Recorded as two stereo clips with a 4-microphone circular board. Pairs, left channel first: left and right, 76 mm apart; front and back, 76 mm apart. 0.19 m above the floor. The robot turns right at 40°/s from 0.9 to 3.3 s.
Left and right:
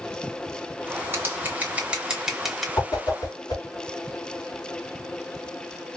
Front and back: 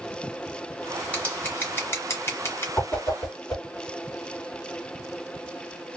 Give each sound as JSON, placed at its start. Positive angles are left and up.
{"t": 1.1, "sound": "scissors", "azimuth_deg": -60, "distance_m": 1.6}
{"t": 2.8, "sound": "a whoosh", "azimuth_deg": 65, "distance_m": 2.0}